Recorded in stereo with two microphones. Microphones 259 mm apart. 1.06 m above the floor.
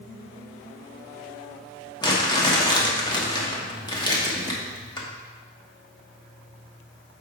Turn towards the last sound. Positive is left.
turn(degrees=15)  # may be behind; listen again after turning